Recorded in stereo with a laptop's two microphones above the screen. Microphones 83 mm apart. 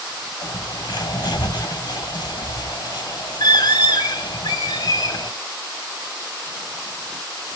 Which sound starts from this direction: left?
A bird, at 0.4 s.